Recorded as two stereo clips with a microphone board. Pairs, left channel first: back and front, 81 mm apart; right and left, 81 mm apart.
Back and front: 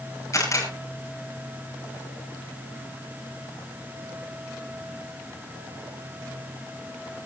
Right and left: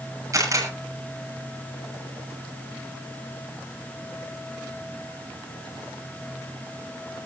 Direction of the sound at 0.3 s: 135° left.